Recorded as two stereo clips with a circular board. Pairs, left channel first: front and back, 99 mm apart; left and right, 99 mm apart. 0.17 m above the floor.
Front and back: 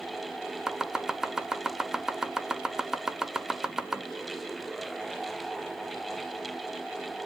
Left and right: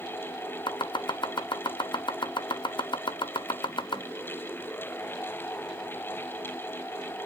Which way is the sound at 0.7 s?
95° left.